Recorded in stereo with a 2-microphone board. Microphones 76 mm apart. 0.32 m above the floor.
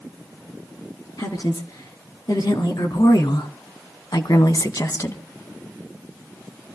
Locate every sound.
1.2 s a woman speaking: 55° left (ahead or behind), 4.5 m; by 5.2 s 40° left (ahead or behind), 2.0 m